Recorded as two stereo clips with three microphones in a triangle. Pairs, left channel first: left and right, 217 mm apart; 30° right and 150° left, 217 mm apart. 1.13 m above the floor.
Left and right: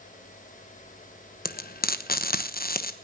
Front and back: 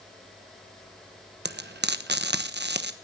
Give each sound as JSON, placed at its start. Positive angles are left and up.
{"t": 1.4, "sound": "frying", "azimuth_deg": 125, "distance_m": 1.0}